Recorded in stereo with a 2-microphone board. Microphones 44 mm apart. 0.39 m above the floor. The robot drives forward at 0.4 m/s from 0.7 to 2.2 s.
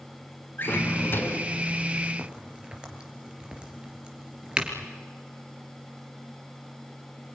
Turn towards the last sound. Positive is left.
turn(degrees=-20)  # may be behind; listen again after turning